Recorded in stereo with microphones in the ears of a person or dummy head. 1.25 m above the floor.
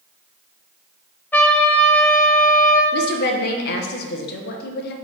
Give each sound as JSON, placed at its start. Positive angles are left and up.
{"t": 1.3, "sound": "a trumpet", "side_deg": 10, "distance_m": 0.6}
{"t": 2.9, "sound": "a woman speaking", "side_deg": 50, "distance_m": 0.7}